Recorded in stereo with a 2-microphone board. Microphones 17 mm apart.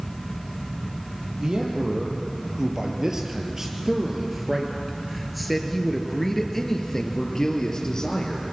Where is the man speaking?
50° right (ahead or behind), 5 m; by 8.5 s 40° left (ahead or behind), 4 m.